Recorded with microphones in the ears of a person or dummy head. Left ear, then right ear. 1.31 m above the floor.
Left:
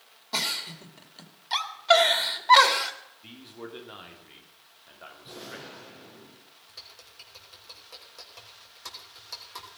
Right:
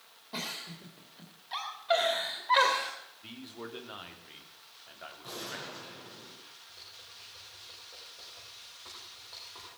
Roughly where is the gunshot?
Right.